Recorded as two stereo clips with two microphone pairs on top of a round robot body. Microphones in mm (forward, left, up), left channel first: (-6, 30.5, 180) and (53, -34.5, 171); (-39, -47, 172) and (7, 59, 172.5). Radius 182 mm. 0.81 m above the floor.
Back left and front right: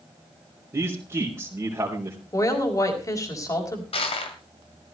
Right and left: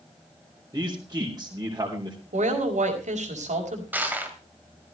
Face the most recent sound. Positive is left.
turn(degrees=145)